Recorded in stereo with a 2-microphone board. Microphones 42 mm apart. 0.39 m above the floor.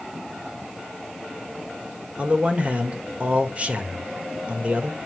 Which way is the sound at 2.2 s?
35° right (ahead or behind).